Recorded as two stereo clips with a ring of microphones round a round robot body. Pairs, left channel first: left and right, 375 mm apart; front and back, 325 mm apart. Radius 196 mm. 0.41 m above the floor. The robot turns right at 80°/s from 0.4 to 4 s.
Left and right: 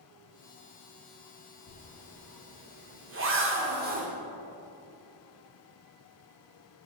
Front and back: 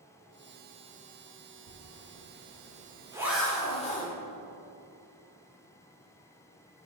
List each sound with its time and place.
1.7 s a zipper: 135° left, 1.3 m; by 4.1 s 40° right, 1.3 m